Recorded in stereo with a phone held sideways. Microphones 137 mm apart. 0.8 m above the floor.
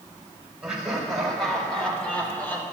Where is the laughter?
Centre (ahead or behind), 4 m; by 2.6 s 15° left (ahead or behind), 3 m.